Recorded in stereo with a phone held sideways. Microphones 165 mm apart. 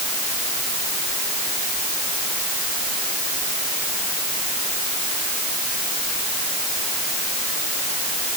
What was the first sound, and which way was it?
Only background noise.